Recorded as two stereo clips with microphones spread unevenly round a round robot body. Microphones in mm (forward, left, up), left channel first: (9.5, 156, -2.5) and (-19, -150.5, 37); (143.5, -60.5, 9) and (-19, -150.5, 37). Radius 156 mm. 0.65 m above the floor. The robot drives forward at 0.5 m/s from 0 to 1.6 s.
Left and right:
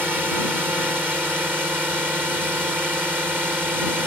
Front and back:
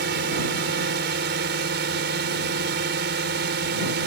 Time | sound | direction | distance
0.0 | a drone | 175° left | ?